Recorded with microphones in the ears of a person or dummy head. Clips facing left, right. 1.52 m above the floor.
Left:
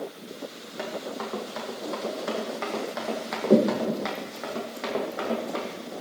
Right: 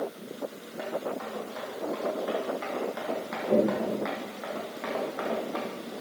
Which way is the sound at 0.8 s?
50° left (ahead or behind).